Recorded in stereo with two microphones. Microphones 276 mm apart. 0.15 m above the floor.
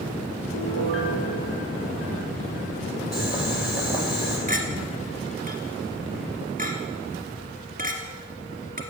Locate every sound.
0.5 s a piano: 50° left (ahead or behind), 2.5 m
3.1 s boiling: 35° left (ahead or behind), 4.5 m
4.5 s a clink: 30° right (ahead or behind), 1.7 m